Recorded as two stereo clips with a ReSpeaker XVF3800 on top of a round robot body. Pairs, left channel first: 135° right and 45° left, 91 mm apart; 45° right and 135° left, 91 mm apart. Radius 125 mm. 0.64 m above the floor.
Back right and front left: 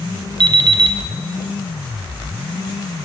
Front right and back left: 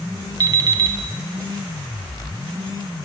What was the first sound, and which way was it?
An alarm clock, 85° left.